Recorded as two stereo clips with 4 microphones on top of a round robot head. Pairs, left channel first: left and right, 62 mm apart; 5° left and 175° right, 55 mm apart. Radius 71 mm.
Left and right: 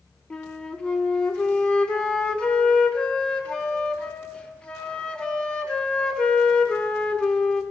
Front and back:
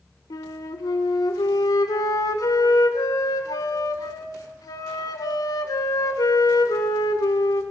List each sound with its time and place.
0.3 s a flute: 15° left, 1.4 m